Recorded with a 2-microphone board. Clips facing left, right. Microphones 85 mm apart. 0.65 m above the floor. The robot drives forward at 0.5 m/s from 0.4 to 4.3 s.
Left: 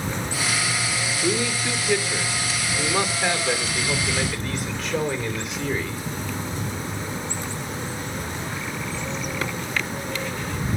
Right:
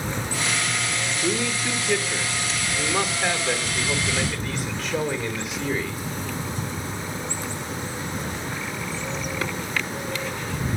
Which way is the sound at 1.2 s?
Centre (ahead or behind).